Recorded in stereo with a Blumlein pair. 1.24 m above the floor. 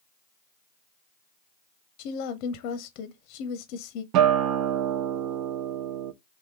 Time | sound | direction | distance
2.0 | a woman speaking | 40° left | 0.8 m
4.1 | a guitar | 40° right | 0.6 m